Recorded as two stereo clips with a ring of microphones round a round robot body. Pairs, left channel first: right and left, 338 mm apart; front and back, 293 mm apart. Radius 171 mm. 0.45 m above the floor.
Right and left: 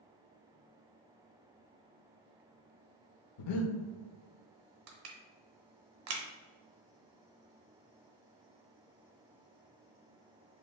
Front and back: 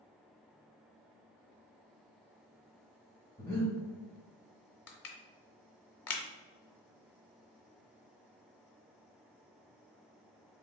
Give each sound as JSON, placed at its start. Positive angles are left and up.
{"t": 3.4, "sound": "breathing", "azimuth_deg": -80, "distance_m": 0.6}
{"t": 4.9, "sound": "crushing", "azimuth_deg": 40, "distance_m": 0.9}